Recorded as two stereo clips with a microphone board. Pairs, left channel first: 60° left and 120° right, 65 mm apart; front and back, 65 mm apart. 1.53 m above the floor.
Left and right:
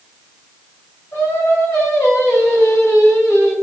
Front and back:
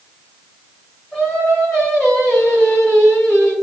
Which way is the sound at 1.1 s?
75° left.